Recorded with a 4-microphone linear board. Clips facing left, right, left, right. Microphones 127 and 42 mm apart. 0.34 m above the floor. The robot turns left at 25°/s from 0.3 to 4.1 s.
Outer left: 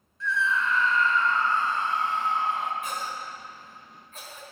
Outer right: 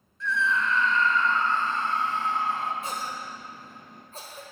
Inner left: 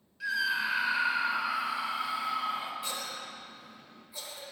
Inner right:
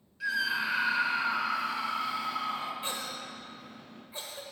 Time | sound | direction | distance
0.2 | a scream | centre (ahead or behind) | 1.0 m
2.8 | a cough | 30° right (ahead or behind) | 1.1 m